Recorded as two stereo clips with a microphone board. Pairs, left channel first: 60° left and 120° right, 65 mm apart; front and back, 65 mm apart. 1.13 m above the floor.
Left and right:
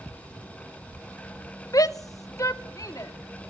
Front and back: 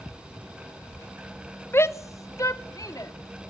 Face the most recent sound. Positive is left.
turn(degrees=25)